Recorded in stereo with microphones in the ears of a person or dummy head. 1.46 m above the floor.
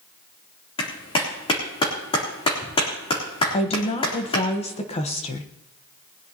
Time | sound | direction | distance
0.8 | a clap | 30° left (ahead or behind) | 3.5 m
3.5 | a woman speaking | 30° left (ahead or behind) | 1.2 m